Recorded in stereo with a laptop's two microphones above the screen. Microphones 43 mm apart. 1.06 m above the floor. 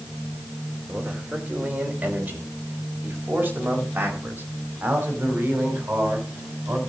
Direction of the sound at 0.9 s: 20° right (ahead or behind).